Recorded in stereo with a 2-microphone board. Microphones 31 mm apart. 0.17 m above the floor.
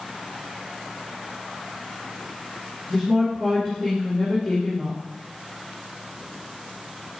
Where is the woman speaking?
20° right (ahead or behind), 3.5 m.